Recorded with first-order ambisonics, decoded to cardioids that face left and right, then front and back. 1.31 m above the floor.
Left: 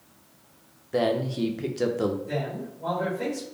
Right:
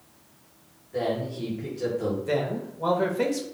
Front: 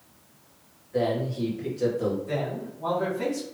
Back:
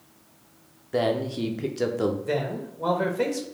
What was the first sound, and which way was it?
A man speaking, 140° left.